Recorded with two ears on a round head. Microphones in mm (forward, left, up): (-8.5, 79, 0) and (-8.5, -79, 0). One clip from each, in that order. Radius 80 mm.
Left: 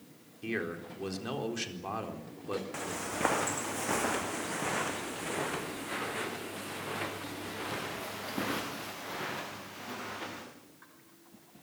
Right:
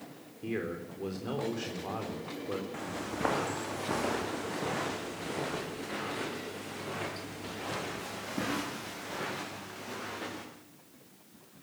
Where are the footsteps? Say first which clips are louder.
Left 1 dB; 70° left (ahead or behind), 3.5 m; by 10.4 s 15° left (ahead or behind), 7.5 m.